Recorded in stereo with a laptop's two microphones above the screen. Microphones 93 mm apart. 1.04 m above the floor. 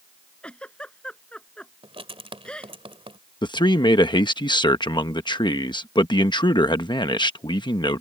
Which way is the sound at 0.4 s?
10° left (ahead or behind).